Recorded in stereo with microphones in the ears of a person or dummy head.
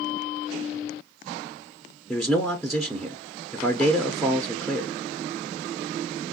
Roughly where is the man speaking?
Centre.